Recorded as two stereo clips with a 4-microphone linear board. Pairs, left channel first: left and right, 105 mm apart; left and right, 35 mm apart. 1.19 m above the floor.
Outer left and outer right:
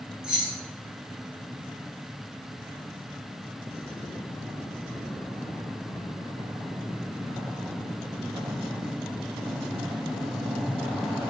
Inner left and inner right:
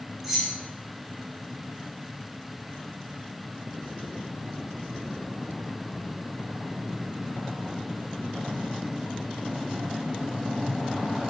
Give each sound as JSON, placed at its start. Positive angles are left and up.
{"t": 0.2, "sound": "keys jangling", "side_deg": -5, "distance_m": 0.7}